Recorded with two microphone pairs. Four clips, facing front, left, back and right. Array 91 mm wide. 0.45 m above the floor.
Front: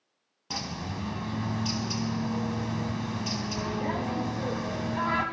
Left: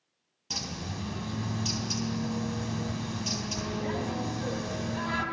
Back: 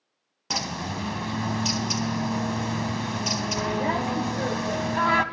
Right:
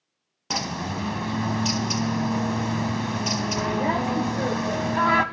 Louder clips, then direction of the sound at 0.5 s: Right 10 dB, back 5 dB; 130° right.